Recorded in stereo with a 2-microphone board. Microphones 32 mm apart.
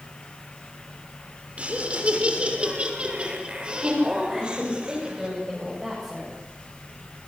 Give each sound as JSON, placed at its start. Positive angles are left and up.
{"t": 1.6, "sound": "laughter", "side_deg": -35, "distance_m": 6.0}
{"t": 4.3, "sound": "a woman speaking", "side_deg": -10, "distance_m": 8.0}